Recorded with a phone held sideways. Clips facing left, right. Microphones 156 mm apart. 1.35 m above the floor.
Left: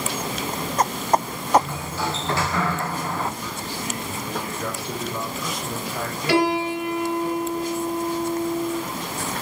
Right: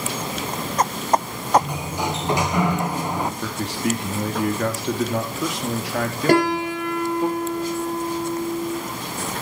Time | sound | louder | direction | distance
1.6 | a sliding door | right 1 dB | 15° right (ahead or behind) | 1.0 m
3.4 | a man speaking | right 6 dB | 80° right | 2.5 m
6.3 | a piano | right 1 dB | 45° right (ahead or behind) | 4.5 m